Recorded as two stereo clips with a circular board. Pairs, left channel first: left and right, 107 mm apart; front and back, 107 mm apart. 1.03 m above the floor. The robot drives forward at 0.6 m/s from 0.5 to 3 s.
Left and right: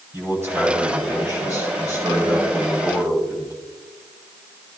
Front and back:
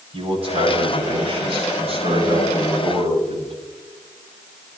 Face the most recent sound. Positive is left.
turn(degrees=-160)